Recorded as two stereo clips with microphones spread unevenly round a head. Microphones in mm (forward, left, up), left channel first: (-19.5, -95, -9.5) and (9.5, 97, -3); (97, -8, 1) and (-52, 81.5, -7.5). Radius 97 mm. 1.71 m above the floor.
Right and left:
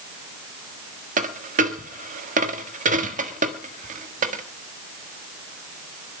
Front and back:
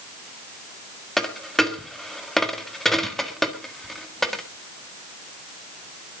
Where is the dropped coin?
55° left, 1.5 m.